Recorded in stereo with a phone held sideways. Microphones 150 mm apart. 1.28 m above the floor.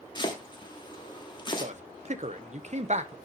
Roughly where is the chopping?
Left.